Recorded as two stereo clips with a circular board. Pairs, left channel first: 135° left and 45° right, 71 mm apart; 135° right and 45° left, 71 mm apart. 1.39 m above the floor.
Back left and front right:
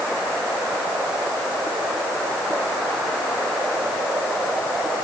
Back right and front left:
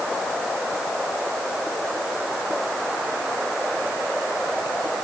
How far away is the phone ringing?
No phone ringing in this recording.